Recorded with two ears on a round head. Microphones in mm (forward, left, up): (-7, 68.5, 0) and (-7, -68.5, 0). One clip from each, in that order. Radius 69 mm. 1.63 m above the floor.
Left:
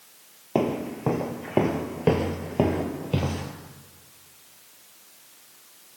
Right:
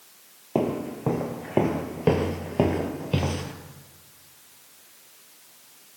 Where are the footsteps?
30° left (ahead or behind), 2.5 m; by 3.5 s 25° right (ahead or behind), 2.5 m.